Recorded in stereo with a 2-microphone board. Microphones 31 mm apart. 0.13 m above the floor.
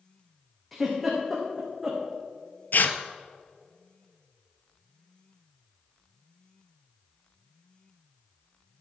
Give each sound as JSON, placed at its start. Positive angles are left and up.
{"t": 0.7, "sound": "a giggle", "side_deg": 0, "distance_m": 3.0}
{"t": 2.7, "sound": "tearing paper", "side_deg": 65, "distance_m": 0.7}